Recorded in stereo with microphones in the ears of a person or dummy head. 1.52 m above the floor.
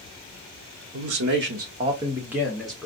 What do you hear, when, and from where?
0.9 s a man speaking: 80° right, 1.0 m; by 2.9 s 5° left (ahead or behind), 1.3 m